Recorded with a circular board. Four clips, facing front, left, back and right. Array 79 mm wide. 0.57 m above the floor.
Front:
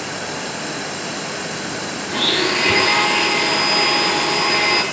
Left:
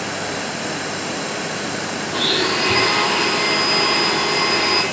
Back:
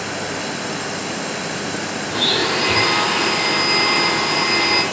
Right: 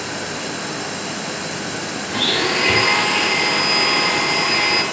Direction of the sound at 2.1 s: 40° right.